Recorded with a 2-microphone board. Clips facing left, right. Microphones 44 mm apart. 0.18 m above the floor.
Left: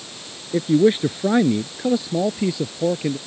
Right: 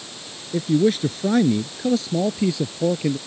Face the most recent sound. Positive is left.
turn(degrees=5)  # may be behind; listen again after turning